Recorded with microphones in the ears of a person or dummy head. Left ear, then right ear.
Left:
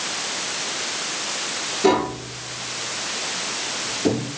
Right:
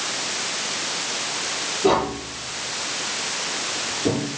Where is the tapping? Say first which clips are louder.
Left 1 dB; 85° left, 8.5 m.